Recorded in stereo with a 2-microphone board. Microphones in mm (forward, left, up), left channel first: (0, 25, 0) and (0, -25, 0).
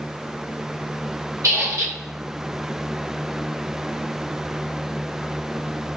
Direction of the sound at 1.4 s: 75° right (ahead or behind).